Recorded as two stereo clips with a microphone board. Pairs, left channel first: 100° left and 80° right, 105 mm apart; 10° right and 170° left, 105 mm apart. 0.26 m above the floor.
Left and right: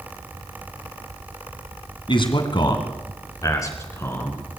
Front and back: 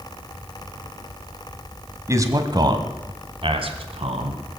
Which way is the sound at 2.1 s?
115° left.